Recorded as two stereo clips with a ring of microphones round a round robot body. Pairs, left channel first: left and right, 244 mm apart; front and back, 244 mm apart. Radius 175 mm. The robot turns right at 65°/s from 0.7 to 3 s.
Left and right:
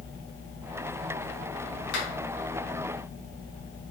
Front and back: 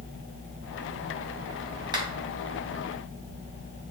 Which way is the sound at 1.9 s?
105° left.